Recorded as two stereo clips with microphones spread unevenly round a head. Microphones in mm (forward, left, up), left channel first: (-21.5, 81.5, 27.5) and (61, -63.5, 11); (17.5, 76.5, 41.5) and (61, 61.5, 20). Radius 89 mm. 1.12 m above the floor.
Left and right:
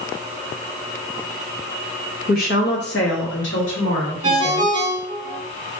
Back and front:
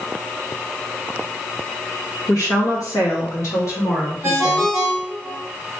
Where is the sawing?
No sawing in this recording.